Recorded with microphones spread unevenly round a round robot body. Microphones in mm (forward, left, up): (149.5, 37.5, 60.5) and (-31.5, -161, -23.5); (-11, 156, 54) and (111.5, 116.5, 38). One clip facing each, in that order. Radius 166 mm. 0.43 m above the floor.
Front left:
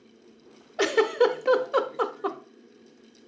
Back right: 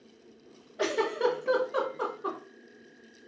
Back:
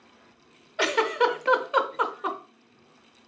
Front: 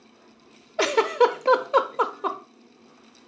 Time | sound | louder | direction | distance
0.8 | a giggle | front left 7 dB, front 4 dB | 35° left | 0.6 m